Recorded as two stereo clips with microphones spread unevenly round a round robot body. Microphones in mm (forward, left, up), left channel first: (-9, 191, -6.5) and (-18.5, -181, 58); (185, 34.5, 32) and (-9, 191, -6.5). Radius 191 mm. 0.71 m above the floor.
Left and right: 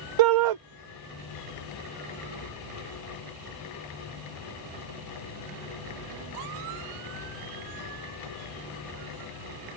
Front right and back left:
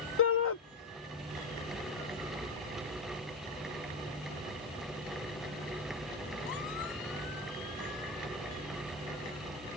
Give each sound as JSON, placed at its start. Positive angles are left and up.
{"t": 0.2, "sound": "a shout", "azimuth_deg": -75}